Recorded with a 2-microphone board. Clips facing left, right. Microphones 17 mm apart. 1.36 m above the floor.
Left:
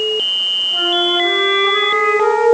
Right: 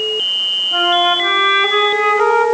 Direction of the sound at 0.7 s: 75° right (ahead or behind).